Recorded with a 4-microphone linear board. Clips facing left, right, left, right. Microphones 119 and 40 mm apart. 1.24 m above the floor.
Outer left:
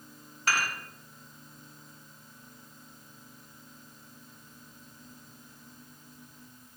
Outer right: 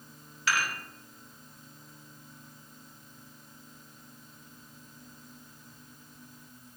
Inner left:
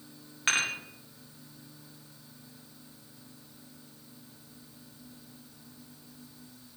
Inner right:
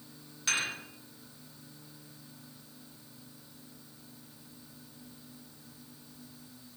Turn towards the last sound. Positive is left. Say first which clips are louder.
# even, inner left 4 dB
turn(degrees=45)  # may be behind; listen again after turning